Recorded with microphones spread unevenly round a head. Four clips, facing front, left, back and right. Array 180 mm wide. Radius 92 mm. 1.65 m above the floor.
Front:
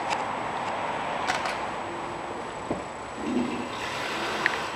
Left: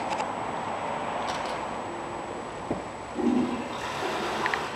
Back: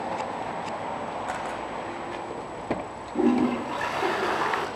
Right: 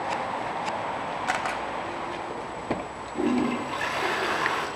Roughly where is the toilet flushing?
Behind.